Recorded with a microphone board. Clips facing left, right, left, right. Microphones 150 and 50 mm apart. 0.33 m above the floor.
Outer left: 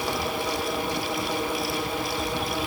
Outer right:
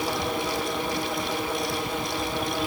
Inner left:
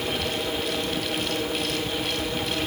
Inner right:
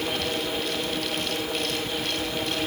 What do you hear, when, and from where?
Only background noise.